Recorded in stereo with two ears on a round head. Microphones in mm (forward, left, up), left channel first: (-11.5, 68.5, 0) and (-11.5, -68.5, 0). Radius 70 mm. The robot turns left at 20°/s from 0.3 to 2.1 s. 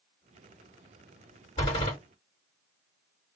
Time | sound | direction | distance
1.6 | a door slam | 40° left (ahead or behind) | 1.7 m